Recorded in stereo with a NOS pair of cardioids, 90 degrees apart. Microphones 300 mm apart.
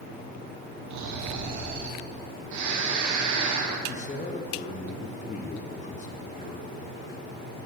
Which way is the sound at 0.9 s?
70° right.